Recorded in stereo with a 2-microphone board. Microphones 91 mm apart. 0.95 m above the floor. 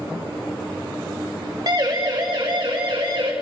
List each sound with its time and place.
1.7 s a siren: 50° right (ahead or behind), 2.5 m; by 3.3 s 70° right (ahead or behind), 4.5 m